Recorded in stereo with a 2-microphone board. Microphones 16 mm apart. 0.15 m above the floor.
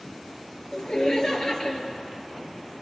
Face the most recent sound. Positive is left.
turn(degrees=35)  # may be behind; listen again after turning